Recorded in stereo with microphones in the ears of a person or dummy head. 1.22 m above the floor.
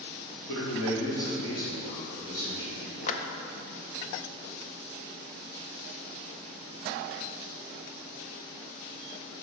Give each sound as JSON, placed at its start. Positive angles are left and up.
{"t": 0.5, "sound": "a man speaking", "side_deg": 65, "distance_m": 3.0}
{"t": 3.1, "sound": "a clap", "side_deg": 45, "distance_m": 0.6}